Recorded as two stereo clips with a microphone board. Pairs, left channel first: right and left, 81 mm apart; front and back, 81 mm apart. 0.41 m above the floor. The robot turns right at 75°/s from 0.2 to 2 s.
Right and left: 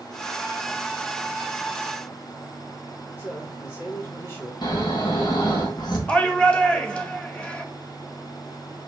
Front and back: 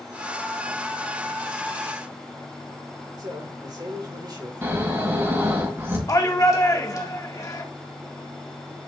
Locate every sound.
3.2 s a man speaking: 150° right, 5 m
4.6 s snoring: 120° right, 3 m
6.1 s a shout: 20° right, 1.8 m